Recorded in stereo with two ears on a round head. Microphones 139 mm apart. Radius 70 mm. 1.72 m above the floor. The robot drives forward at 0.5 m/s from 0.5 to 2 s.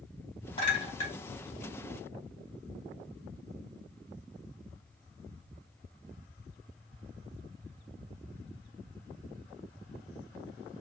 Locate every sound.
0.6 s a clink: 35° left (ahead or behind), 2 m; by 1.1 s 40° left (ahead or behind), 1.9 m